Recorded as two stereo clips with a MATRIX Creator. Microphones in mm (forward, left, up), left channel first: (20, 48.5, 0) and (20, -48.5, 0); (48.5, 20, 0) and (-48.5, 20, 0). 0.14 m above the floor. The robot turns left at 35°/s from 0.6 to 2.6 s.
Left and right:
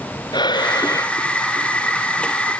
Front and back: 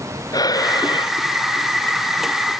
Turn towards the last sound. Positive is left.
turn(degrees=-20)